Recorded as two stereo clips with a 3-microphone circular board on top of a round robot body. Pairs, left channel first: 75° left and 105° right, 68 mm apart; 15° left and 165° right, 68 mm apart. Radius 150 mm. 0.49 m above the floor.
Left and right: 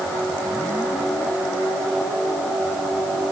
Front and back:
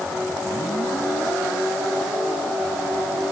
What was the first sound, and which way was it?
Only background noise.